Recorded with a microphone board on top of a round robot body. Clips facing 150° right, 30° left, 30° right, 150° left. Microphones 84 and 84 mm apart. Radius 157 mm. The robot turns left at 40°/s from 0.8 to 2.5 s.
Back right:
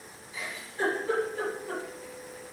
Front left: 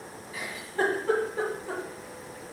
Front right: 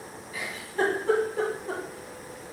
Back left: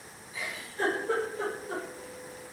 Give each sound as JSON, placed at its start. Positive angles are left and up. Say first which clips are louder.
{"t": 0.3, "sound": "a giggle", "louder": "front left 4 dB, front right 6 dB", "azimuth_deg": -5, "distance_m": 1.6}